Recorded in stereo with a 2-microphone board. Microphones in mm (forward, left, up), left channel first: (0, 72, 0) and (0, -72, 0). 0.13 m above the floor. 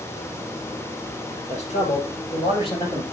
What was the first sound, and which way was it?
A man speaking, 55° left (ahead or behind).